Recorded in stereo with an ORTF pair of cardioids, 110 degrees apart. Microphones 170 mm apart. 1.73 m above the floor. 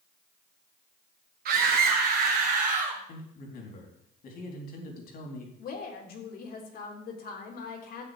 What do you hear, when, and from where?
1.4 s a scream: 60° right, 1.5 m; by 3.0 s 45° right, 3 m
3.1 s a man speaking: 60° left, 3.5 m
5.6 s a woman speaking: 60° left, 3.5 m